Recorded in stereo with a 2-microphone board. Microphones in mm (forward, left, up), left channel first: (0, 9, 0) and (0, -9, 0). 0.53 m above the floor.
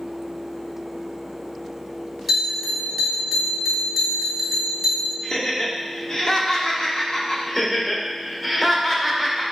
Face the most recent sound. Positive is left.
turn(degrees=15)  # may be behind; listen again after turning